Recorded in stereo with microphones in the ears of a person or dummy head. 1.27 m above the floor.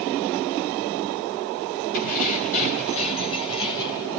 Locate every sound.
1.9 s keys jangling: 55° left (ahead or behind), 4 m; by 4.1 s 25° left (ahead or behind), 3.5 m